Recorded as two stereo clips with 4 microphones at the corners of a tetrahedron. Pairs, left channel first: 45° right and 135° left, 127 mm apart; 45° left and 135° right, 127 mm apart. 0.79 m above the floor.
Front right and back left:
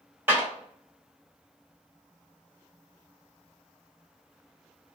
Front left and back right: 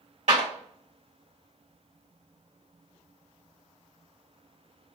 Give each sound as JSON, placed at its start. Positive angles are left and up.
{"t": 0.3, "sound": "a clap", "azimuth_deg": -155, "distance_m": 1.5}